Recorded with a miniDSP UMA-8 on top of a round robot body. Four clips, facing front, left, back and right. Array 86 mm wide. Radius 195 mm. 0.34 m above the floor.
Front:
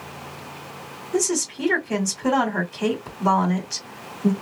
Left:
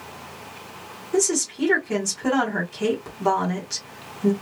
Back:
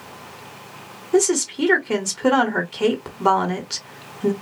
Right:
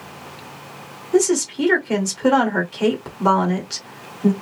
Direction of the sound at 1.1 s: 155° right.